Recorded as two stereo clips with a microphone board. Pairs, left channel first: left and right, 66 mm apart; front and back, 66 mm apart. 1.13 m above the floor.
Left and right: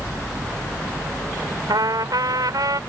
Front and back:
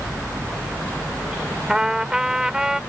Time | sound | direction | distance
1.7 | a trumpet | 100° right | ?